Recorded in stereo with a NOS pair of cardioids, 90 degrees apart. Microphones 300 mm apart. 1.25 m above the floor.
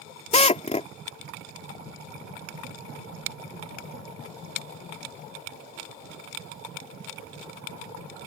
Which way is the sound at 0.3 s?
20° left.